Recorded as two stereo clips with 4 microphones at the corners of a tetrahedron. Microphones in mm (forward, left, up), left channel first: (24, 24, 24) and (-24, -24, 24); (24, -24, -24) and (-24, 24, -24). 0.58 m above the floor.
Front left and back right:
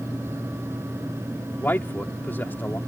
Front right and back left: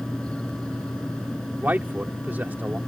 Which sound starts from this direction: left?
A man speaking, at 1.6 s.